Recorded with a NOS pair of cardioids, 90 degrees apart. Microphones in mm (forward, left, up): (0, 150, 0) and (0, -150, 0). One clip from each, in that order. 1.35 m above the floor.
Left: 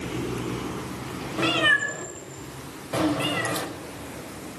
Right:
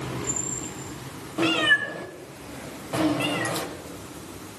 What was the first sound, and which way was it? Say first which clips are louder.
A cat meowing: even; 5° left.